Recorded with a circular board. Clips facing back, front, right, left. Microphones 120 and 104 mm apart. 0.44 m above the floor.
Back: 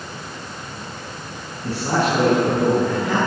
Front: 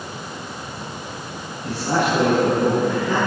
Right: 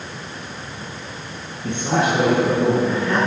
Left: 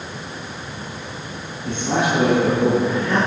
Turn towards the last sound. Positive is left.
turn(degrees=-135)